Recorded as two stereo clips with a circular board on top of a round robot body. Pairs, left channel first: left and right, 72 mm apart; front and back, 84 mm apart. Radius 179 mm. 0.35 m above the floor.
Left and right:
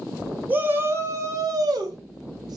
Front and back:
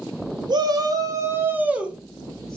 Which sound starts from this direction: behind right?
A shout, at 0.5 s.